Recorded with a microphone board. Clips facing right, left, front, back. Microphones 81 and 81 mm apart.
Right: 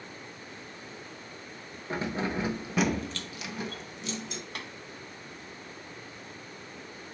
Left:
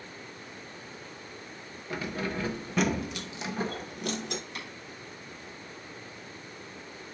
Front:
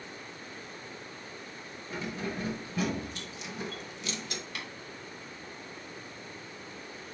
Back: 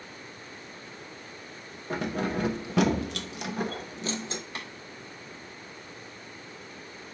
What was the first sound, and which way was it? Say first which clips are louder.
Keys jangling: right 2 dB, back 7 dB; 150° right.